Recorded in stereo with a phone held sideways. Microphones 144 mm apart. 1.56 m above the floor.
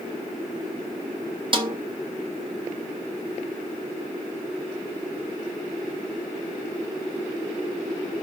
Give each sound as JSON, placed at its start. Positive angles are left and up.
{"t": 1.5, "sound": "a snare drum", "side_deg": -35, "distance_m": 1.0}